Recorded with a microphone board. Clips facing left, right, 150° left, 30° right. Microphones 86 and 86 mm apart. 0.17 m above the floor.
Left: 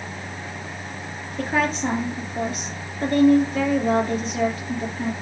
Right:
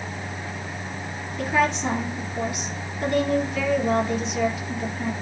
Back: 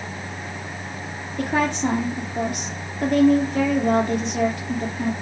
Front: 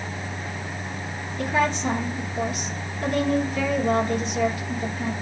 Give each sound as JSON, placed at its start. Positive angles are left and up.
{"t": 1.4, "sound": "a woman speaking", "azimuth_deg": 140, "distance_m": 4.5}